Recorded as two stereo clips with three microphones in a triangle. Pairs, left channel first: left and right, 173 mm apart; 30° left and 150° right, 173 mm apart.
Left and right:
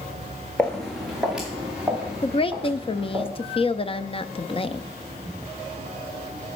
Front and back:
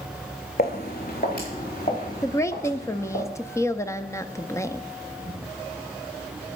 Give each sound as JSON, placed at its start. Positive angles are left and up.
{"t": 0.6, "sound": "footsteps", "azimuth_deg": 10, "distance_m": 2.0}
{"t": 2.2, "sound": "a woman speaking", "azimuth_deg": 85, "distance_m": 0.5}